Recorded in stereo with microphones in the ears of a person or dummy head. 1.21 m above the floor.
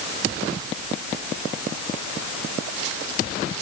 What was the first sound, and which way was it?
Only background noise.